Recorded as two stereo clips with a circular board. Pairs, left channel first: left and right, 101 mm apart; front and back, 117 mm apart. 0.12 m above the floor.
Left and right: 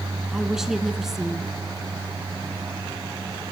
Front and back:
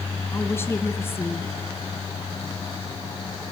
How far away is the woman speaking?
About 1.1 m.